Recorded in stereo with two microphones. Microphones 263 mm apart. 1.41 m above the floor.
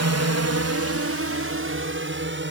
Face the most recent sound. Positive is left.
turn(degrees=-45)  # may be behind; listen again after turning